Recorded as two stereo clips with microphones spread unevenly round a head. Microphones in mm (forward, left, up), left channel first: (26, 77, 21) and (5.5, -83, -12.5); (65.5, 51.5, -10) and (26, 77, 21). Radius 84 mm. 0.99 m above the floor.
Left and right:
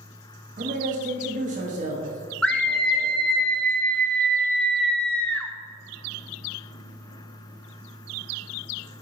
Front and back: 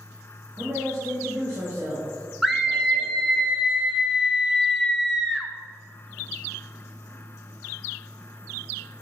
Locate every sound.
0.6 s a man speaking: 135° right, 1.5 m
2.4 s a scream: 15° right, 0.8 m